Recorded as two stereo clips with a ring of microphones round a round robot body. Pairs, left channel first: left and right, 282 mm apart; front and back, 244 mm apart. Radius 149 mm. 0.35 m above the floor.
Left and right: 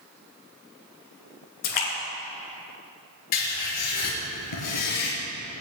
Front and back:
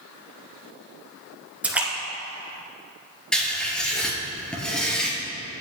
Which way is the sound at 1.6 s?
95° left.